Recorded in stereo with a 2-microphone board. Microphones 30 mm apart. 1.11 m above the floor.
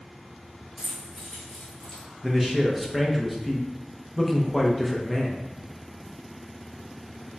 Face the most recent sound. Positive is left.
turn(degrees=-5)  # may be behind; listen again after turning